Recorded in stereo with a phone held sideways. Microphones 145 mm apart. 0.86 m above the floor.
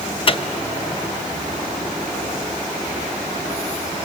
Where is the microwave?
40° left (ahead or behind), 0.6 m.